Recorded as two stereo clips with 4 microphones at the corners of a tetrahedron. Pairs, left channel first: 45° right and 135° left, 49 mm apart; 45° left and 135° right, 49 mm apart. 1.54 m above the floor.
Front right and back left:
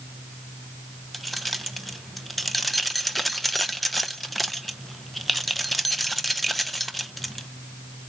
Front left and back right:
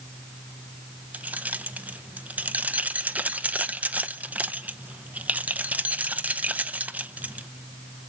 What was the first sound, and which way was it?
Keys jangling, 130° right.